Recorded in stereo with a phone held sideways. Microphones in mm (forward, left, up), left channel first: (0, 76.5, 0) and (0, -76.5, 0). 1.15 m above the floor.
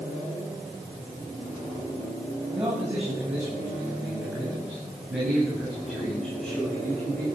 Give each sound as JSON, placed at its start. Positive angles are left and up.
{"t": 2.5, "sound": "a man speaking", "side_deg": -20, "distance_m": 7.5}